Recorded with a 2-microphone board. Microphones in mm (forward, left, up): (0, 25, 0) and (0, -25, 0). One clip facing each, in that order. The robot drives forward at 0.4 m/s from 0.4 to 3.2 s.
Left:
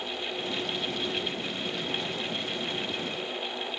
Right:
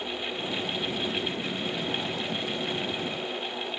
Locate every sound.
Only background noise.